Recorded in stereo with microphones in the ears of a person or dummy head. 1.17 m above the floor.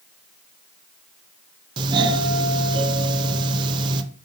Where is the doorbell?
20° right (ahead or behind), 0.6 m.